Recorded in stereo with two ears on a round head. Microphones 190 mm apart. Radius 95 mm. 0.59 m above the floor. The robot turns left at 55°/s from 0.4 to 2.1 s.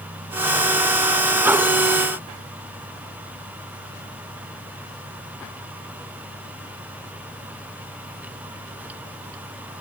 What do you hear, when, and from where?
Only background noise.